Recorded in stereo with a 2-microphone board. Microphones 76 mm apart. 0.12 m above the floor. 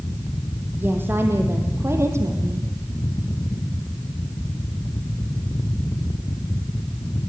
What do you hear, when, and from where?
0.8 s a woman speaking: 25° right (ahead or behind), 4.5 m; by 2.7 s 40° right (ahead or behind), 4 m